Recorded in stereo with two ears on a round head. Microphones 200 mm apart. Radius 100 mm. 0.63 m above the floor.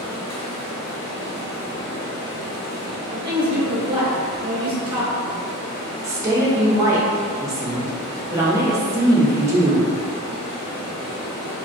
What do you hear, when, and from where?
0.0 s running water: 85° left, 0.8 m
3.1 s a woman speaking: 25° right (ahead or behind), 0.7 m
6.0 s a woman speaking: 15° right (ahead or behind), 0.6 m